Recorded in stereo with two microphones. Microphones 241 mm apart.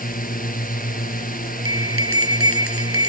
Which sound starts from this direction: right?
A bell, at 1.6 s.